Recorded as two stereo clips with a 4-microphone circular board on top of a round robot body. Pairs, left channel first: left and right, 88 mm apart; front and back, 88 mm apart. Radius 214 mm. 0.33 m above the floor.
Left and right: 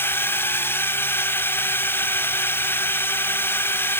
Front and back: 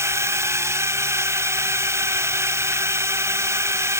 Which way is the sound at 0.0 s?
140° left.